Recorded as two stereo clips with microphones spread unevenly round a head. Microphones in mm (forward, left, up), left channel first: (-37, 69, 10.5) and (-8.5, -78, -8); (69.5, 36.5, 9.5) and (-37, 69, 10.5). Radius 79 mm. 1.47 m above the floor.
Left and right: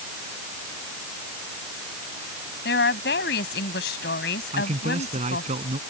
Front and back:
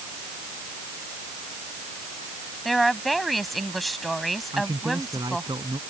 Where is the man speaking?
125° right.